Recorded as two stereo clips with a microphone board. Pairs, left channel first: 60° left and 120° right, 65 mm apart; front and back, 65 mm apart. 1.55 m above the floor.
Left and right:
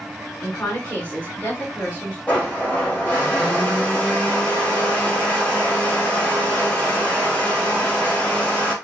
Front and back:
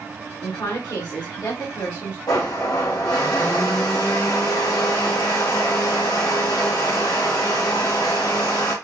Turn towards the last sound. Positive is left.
turn(degrees=-5)